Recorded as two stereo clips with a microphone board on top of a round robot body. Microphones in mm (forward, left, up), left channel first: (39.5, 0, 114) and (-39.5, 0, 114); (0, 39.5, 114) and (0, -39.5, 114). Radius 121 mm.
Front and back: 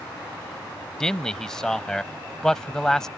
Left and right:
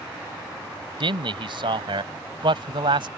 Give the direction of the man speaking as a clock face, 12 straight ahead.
3 o'clock.